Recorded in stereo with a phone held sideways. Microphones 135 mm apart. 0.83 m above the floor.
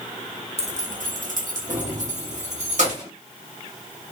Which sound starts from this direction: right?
Keys jangling, at 0.6 s.